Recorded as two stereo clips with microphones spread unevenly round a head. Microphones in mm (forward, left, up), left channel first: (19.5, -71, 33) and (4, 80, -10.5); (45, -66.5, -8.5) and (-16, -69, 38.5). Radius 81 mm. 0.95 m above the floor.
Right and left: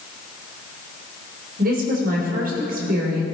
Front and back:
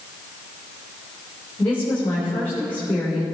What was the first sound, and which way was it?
A woman speaking, 70° left.